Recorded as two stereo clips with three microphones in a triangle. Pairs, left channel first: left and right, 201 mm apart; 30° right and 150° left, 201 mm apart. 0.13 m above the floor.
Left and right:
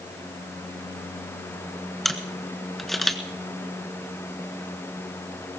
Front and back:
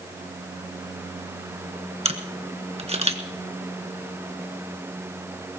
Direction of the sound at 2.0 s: Straight behind.